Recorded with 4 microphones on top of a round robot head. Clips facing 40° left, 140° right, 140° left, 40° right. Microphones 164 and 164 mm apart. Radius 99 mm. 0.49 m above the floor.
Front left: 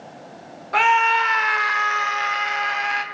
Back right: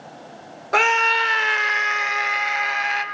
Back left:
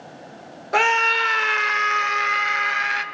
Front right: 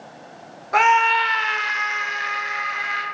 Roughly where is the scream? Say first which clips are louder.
Front left 2 dB, front right 4 dB; behind.